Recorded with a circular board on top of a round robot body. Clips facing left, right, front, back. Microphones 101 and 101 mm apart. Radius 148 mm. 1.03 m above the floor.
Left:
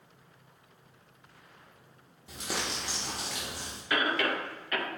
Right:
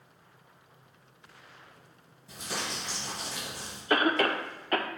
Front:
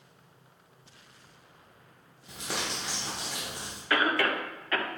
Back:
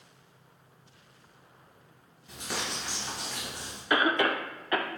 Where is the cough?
115° right, 0.5 m.